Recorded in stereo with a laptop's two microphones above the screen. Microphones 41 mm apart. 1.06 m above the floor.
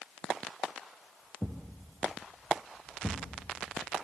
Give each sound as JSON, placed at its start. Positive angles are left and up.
{"t": 1.4, "sound": "a thud", "side_deg": 20, "distance_m": 2.5}